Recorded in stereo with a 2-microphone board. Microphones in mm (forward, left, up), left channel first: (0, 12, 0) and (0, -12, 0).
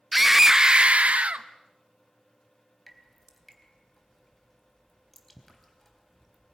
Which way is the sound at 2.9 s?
5° left (ahead or behind).